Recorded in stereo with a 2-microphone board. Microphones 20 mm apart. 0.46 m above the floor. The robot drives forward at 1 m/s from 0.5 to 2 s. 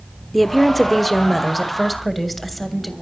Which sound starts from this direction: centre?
A woman speaking, at 0.3 s.